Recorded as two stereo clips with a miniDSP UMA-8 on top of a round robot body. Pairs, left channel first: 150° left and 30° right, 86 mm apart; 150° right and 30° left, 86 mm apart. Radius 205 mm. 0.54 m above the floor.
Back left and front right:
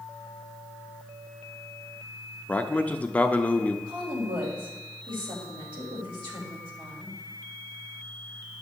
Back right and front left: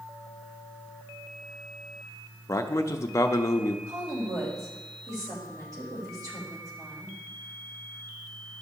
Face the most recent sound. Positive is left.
turn(degrees=-15)